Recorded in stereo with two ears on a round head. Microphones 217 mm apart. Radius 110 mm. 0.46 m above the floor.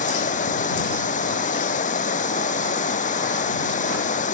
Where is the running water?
35° left (ahead or behind).